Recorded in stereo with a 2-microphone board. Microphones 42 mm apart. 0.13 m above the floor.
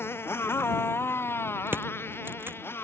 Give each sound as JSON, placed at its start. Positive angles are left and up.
{"t": 0.0, "sound": "a motorcycle", "side_deg": 75}
{"t": 1.7, "sound": "crushing", "side_deg": -60}